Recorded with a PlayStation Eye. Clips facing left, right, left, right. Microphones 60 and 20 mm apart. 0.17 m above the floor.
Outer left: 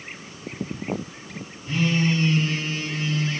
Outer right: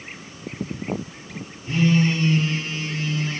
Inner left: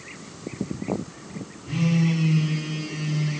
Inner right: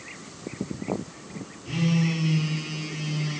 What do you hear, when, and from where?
1.6 s a phone buzzing: 55° right (ahead or behind), 1.4 m